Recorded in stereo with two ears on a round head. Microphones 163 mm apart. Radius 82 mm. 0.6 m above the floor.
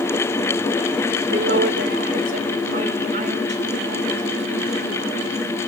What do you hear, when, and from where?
1.3 s a woman speaking: 55° right (ahead or behind), 2 m; by 5.6 s 35° right (ahead or behind), 7 m